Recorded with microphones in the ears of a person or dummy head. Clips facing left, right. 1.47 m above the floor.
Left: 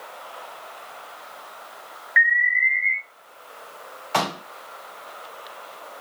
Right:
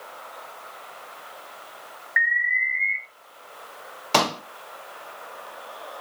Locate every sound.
2.2 s an alarm: 40° left (ahead or behind), 1.4 m
4.1 s a pop: 65° right (ahead or behind), 1.9 m